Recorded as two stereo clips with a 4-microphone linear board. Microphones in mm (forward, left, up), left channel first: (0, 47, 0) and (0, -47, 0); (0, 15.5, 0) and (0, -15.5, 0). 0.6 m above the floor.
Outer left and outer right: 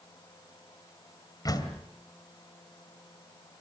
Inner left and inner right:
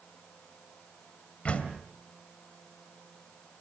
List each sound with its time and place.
1.4 s a door slam: 40° left (ahead or behind), 2.5 m